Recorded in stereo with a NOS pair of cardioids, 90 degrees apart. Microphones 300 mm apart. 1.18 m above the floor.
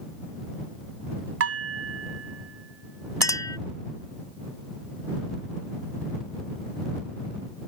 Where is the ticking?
I don't hear ticking.